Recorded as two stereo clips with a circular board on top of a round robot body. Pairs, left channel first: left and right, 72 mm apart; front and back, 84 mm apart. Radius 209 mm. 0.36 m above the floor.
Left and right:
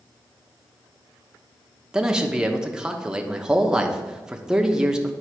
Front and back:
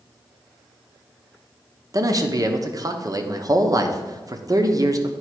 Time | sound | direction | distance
1.9 | a man speaking | 170° right | 1.1 m